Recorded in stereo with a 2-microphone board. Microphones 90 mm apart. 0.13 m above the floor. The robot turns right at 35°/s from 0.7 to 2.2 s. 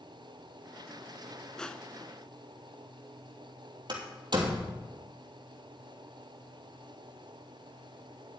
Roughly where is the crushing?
Centre.